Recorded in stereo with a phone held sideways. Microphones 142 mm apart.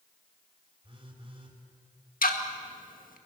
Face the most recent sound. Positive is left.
turn(degrees=75)  # may be behind; listen again after turning